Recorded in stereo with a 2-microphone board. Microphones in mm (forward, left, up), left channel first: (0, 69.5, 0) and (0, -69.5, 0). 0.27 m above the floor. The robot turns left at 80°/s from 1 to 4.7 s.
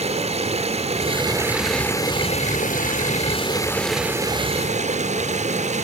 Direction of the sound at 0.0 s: 125° right.